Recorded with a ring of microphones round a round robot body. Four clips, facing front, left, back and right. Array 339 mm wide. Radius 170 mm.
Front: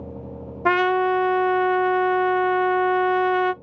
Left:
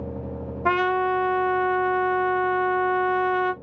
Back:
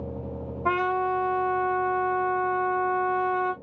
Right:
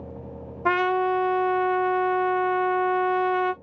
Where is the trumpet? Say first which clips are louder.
Even, front 6 dB; straight ahead, 0.6 m.